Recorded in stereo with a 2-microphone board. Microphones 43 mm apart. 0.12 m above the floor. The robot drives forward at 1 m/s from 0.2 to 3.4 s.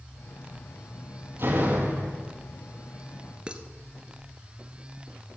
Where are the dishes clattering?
25° right (ahead or behind), 1.3 m.